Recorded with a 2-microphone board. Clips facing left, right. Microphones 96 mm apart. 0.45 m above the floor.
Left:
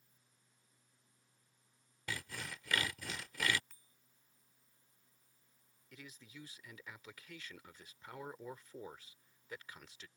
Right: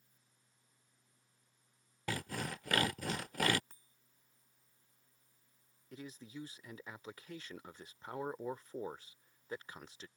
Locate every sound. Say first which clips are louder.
2.1 s sawing: right 6 dB; 50° right (ahead or behind)
3.7 s a bicycle bell: right 3 dB; 35° right (ahead or behind)
5.9 s a man speaking: right 7 dB; 30° right (ahead or behind)